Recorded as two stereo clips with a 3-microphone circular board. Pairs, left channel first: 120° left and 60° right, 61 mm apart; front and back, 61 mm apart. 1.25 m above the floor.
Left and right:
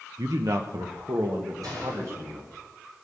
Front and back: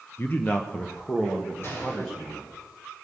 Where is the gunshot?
50° right, 6.5 m.